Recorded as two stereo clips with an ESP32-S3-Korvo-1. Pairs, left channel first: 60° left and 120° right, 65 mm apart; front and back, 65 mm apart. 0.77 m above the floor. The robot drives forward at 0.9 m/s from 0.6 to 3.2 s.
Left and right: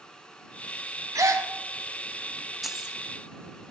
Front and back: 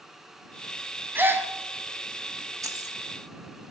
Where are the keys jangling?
155° left, 0.6 m; by 3.0 s 160° left, 0.9 m.